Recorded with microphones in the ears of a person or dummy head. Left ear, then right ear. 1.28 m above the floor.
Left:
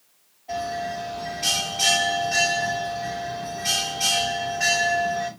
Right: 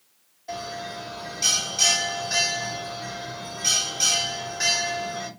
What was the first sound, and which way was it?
A bell, 75° right (ahead or behind).